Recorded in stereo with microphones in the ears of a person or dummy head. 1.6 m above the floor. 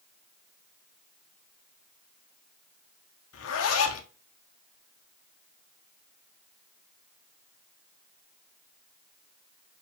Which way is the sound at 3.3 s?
80° left.